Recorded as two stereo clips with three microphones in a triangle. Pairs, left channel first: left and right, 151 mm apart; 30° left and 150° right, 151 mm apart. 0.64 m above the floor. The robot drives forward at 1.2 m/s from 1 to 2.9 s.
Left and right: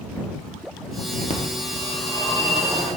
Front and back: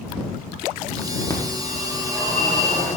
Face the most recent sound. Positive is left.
turn(degrees=160)